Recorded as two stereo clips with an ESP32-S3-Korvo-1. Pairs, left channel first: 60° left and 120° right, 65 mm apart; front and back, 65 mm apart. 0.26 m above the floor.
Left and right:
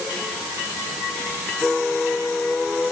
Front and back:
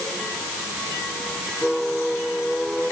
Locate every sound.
Only background noise.